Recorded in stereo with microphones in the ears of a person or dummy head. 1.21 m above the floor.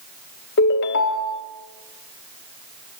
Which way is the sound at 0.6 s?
65° left (ahead or behind).